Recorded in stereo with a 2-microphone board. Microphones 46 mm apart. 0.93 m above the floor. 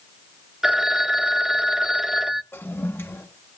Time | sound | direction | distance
0.6 | a phone ringing | 10° right (ahead or behind) | 0.5 m
2.5 | a toilet flushing | 65° left (ahead or behind) | 1.4 m